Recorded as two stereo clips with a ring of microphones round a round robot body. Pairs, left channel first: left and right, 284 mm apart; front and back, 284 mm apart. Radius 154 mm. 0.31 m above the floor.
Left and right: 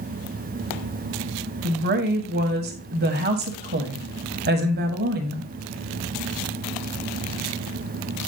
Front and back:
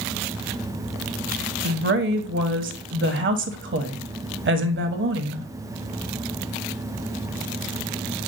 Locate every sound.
1.6 s a woman speaking: 140° right, 1.5 m